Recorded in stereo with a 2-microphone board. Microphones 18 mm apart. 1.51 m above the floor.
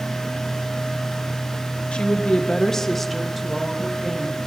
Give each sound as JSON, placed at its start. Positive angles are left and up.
{"t": 1.9, "sound": "a woman speaking", "side_deg": 80, "distance_m": 1.0}